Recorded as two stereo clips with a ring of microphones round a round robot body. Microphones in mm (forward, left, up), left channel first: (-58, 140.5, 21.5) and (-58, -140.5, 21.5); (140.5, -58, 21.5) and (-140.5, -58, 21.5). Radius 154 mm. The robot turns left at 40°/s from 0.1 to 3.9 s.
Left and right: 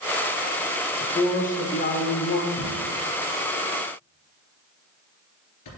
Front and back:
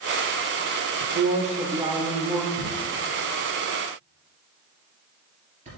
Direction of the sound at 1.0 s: 145° left.